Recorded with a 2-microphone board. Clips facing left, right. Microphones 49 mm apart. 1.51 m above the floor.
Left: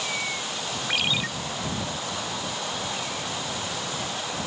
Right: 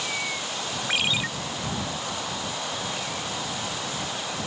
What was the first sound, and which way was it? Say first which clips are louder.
A ringtone: even; 10° right (ahead or behind).